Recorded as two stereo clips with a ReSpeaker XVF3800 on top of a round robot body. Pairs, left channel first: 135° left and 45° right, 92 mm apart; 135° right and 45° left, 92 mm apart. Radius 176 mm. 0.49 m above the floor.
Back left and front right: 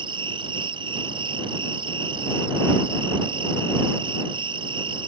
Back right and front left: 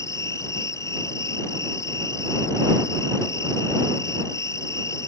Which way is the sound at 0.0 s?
75° right.